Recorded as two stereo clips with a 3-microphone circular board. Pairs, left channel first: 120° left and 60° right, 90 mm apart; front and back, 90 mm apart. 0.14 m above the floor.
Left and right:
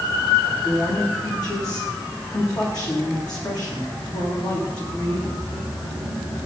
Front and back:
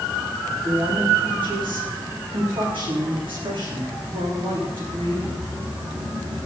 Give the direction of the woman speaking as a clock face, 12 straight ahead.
7 o'clock.